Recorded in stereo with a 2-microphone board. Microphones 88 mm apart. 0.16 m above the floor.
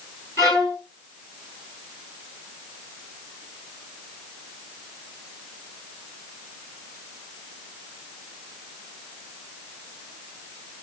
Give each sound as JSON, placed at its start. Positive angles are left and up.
{"t": 0.4, "sound": "a violin", "side_deg": 40, "distance_m": 2.5}